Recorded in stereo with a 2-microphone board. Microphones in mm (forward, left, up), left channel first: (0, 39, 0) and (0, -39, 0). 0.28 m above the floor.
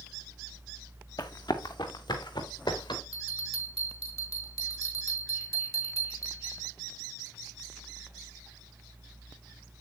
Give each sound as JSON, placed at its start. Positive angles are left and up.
{"t": 1.2, "sound": "running footsteps", "side_deg": 60, "distance_m": 1.6}
{"t": 3.1, "sound": "a bell", "side_deg": 45, "distance_m": 3.5}